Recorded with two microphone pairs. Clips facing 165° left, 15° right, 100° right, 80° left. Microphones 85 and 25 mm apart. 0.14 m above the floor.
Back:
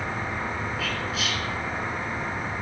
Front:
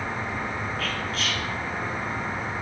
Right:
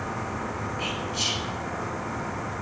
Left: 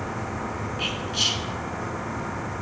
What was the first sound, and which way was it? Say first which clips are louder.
Whispering: even, left 4 dB; 85° left.